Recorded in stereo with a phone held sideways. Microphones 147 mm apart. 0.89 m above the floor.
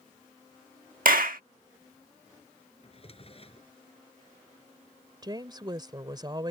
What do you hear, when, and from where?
1.1 s a clap: 70° right (ahead or behind)
2.8 s a drawer: 40° left (ahead or behind)
5.2 s a woman speaking: 30° right (ahead or behind)